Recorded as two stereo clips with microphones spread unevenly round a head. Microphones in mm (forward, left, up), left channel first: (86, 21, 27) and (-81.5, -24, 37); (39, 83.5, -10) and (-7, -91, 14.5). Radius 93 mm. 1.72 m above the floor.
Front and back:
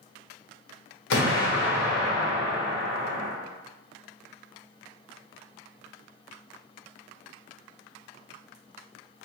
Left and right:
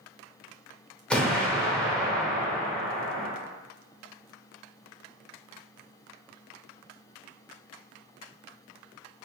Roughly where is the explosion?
Ahead.